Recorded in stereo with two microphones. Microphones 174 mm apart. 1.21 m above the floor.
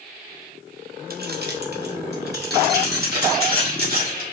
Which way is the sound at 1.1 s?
65° right (ahead or behind).